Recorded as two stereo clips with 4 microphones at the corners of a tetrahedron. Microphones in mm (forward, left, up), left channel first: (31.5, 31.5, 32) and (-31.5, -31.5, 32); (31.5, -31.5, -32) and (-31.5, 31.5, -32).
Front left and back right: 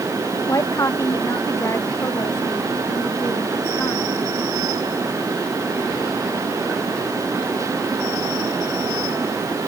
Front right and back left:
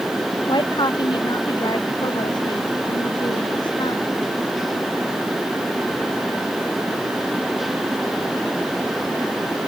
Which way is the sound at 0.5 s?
10° right.